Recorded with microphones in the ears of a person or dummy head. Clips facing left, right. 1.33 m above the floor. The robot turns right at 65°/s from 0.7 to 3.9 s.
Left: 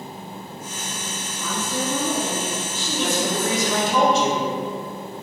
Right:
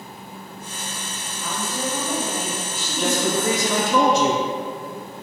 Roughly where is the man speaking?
Behind right.